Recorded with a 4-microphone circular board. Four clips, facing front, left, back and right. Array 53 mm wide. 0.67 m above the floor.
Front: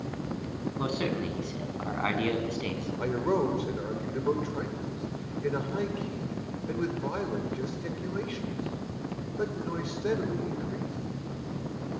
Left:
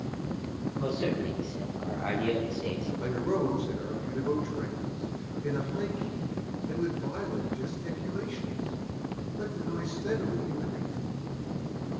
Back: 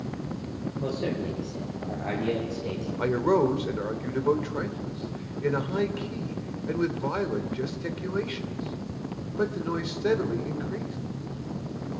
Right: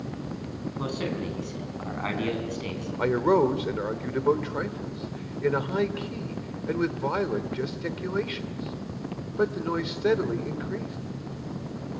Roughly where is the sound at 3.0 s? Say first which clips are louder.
Right 9 dB, back 5 dB; right.